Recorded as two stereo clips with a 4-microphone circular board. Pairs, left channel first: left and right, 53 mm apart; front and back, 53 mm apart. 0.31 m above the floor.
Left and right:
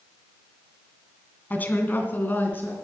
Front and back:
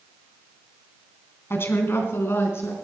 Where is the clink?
I don't hear a clink.